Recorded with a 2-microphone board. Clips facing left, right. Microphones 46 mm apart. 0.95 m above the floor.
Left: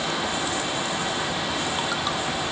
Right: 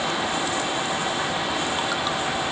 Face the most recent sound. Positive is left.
No sound to turn to.